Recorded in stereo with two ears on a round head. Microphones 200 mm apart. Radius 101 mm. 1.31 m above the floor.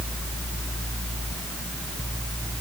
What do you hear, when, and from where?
Only background noise.